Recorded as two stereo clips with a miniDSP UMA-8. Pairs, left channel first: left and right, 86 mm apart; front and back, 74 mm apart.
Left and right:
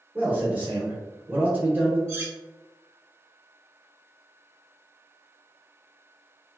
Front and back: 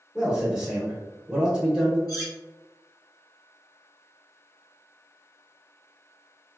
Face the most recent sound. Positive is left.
turn(degrees=-25)